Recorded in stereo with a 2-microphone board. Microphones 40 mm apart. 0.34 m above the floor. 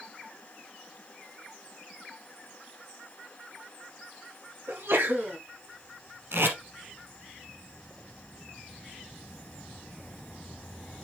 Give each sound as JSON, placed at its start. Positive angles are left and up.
{"t": 4.7, "sound": "a sneeze", "side_deg": -70, "distance_m": 3.0}
{"t": 6.3, "sound": "tape being pulled", "side_deg": -75, "distance_m": 2.5}